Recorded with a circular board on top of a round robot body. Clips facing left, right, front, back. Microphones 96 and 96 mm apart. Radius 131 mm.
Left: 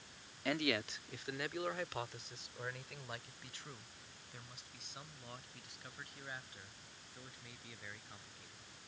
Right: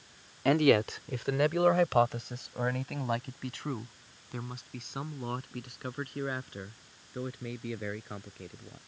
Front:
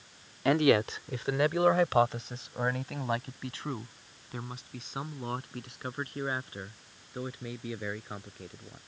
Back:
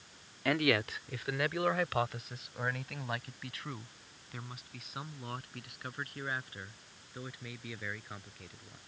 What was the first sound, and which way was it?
A man speaking, 60° right.